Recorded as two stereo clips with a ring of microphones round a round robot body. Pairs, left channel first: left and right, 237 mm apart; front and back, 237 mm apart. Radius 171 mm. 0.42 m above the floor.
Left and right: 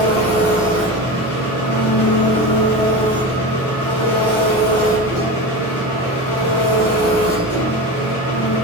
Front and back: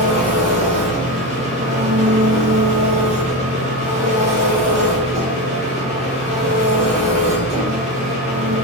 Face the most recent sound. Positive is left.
turn(degrees=120)